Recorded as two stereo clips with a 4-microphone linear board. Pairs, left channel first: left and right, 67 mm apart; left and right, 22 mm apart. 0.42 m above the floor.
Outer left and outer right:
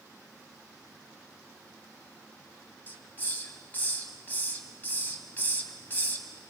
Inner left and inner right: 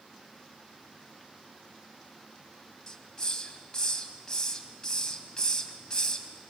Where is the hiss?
25° left (ahead or behind), 1.8 m.